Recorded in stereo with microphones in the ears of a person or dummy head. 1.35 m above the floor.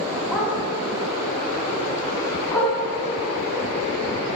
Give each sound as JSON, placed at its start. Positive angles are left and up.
{"t": 0.3, "sound": "a dog barking", "side_deg": 5, "distance_m": 4.0}